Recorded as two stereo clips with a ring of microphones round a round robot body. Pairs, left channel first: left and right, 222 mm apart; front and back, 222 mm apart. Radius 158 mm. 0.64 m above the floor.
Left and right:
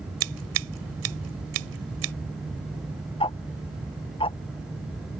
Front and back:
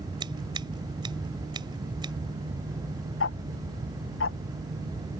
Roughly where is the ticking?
Ahead left.